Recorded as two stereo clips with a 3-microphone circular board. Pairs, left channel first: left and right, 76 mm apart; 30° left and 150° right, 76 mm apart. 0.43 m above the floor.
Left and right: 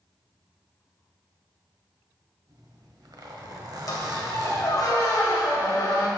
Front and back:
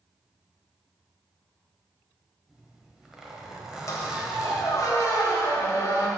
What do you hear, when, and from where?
2.5 s a zipper: 70° right, 1.2 m
3.9 s a squeak: 65° left, 1.4 m